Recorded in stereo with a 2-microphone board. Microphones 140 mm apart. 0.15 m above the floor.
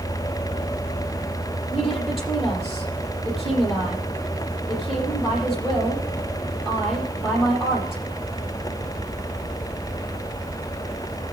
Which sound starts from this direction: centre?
A woman speaking, at 1.7 s.